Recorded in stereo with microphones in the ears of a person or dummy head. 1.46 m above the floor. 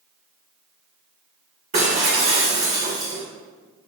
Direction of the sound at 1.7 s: 40° right (ahead or behind).